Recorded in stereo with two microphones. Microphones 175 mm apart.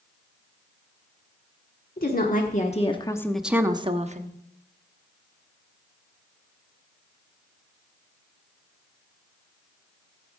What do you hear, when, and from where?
2.0 s a woman speaking: 60° left (ahead or behind), 1.4 m; by 4.3 s 50° right (ahead or behind), 1.0 m